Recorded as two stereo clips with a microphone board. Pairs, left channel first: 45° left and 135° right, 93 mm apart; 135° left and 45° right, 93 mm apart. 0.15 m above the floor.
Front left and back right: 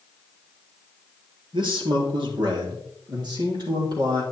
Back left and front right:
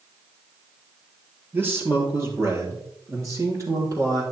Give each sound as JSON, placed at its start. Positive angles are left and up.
{"t": 1.5, "sound": "a man speaking", "azimuth_deg": -110, "distance_m": 3.0}